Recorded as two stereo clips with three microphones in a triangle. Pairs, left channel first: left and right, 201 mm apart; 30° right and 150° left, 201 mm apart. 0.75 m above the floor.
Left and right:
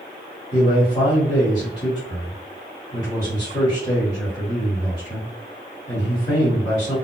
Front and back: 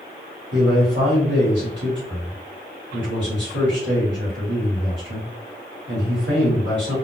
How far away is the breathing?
No breathing in this recording.